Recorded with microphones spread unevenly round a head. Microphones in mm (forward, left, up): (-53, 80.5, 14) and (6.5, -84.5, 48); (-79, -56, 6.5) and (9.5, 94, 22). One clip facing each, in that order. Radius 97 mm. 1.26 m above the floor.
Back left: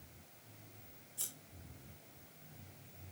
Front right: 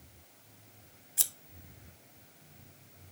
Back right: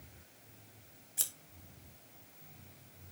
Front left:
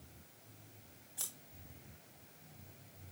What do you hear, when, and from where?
1.2 s scissors: 55° right, 1.2 m